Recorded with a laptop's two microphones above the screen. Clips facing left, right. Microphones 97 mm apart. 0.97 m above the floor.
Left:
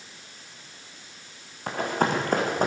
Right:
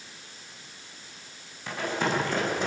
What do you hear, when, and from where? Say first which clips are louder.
1.7 s running footsteps: left 3 dB; 45° left (ahead or behind), 4.5 m; by 2.7 s 50° left (ahead or behind), 3.5 m